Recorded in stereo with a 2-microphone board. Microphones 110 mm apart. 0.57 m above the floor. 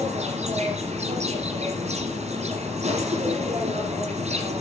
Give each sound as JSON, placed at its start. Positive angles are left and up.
{"t": 0.0, "sound": "an insect", "side_deg": -90, "distance_m": 6.0}